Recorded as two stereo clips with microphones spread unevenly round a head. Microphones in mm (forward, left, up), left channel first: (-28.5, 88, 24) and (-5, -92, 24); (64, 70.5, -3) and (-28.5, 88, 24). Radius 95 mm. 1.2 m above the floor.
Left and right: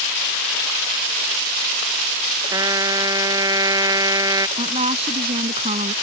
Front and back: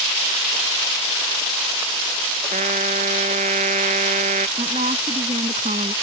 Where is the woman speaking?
140° right.